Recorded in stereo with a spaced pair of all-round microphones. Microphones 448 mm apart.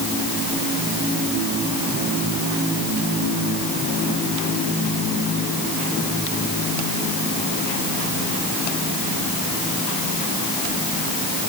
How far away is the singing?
I don't hear singing.